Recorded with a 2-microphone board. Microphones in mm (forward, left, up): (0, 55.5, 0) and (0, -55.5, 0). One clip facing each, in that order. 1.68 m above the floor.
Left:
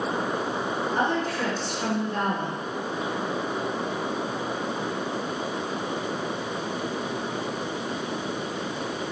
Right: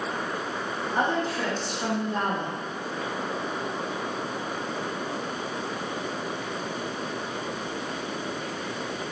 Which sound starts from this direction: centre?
A woman speaking, at 0.9 s.